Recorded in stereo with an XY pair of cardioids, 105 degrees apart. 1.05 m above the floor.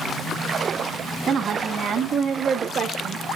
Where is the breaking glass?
I don't hear breaking glass.